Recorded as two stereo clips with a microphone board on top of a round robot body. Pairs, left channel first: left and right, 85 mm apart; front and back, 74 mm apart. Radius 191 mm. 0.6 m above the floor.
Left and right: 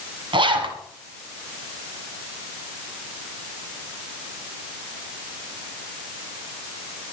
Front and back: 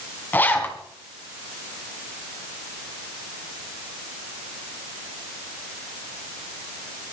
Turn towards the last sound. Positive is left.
turn(degrees=-65)